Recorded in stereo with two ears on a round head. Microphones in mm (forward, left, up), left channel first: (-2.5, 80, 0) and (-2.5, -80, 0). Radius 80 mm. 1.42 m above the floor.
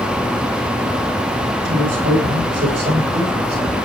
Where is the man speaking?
70° right (ahead or behind), 8.5 m; by 3.8 s 55° right (ahead or behind), 9 m.